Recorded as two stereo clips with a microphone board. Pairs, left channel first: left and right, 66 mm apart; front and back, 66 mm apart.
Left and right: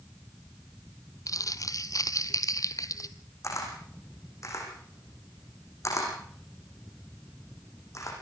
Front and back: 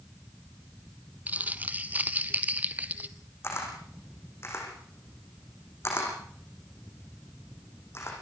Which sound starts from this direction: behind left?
Crumpling, at 1.3 s.